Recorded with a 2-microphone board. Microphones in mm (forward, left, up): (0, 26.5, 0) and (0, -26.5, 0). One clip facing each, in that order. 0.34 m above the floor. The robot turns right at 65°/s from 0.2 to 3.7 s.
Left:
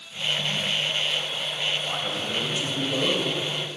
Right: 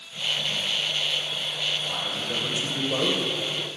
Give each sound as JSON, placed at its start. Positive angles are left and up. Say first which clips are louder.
{"t": 1.9, "sound": "a man speaking", "louder": "left 1 dB", "azimuth_deg": 150, "distance_m": 1.3}